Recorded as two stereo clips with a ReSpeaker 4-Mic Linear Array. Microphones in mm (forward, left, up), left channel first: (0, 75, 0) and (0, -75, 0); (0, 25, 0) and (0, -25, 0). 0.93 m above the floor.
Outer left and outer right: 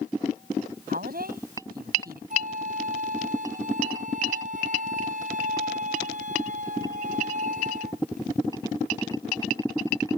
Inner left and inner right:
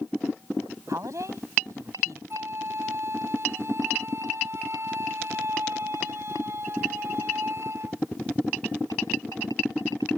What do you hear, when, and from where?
0.9 s a woman speaking: 75° right (ahead or behind)
2.3 s a flute: 55° right (ahead or behind)